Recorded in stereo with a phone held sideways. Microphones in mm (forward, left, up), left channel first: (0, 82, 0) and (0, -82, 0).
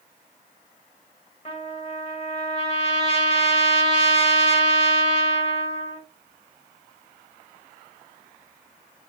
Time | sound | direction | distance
1.4 | a trumpet | 40° left (ahead or behind) | 1.3 m